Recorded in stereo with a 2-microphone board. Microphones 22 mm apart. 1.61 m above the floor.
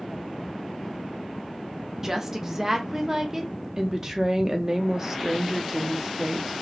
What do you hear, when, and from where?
2.0 s a woman speaking: 20° right (ahead or behind), 0.6 m
3.8 s a woman speaking: 25° right (ahead or behind), 0.7 m